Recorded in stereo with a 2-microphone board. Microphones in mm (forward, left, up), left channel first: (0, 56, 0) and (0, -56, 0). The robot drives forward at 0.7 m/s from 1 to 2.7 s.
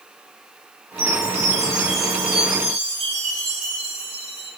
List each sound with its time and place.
1.0 s a chime: 75° right (ahead or behind), 1.2 m; by 4.5 s 50° right (ahead or behind), 1.4 m